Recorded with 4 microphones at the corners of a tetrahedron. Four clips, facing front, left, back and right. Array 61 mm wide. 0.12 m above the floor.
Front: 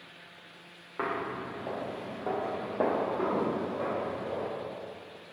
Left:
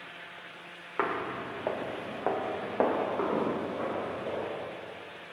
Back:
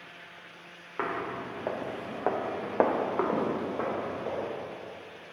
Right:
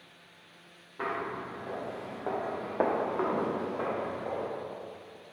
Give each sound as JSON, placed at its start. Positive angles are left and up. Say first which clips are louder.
{"t": 1.0, "sound": "footsteps", "louder": "left 3 dB, even", "azimuth_deg": 100, "distance_m": 0.8}